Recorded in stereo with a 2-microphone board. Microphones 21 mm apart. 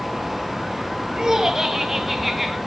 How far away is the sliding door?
No sliding door in this recording.